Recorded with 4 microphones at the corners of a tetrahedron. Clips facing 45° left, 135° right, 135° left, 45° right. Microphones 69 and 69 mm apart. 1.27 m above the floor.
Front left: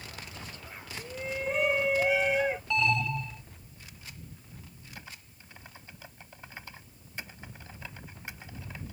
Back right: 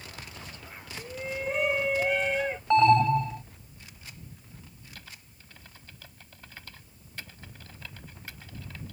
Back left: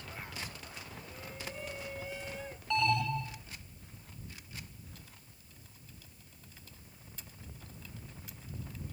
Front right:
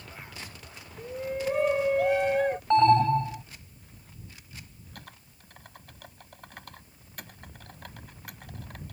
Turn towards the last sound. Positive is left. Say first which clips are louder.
# front left 4 dB, front right 8 dB
turn(degrees=-25)